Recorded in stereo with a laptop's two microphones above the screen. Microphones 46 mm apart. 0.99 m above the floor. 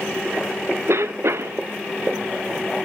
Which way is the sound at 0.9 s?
65° right (ahead or behind).